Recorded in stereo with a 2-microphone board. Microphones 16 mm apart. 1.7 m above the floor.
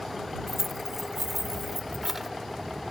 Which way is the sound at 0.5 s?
10° right (ahead or behind).